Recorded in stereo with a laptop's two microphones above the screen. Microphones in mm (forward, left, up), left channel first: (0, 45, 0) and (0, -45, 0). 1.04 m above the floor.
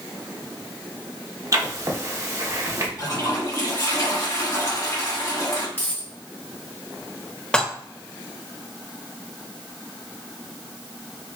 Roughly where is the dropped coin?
Left.